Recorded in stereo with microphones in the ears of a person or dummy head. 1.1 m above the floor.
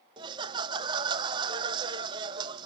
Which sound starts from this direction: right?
Laughter, at 0.2 s.